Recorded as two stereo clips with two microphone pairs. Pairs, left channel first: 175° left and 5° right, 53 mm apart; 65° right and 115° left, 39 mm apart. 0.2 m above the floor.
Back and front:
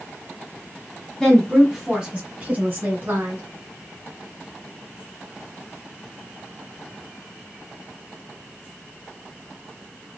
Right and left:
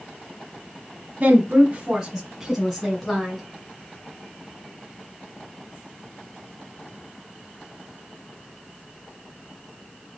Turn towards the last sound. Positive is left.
turn(degrees=15)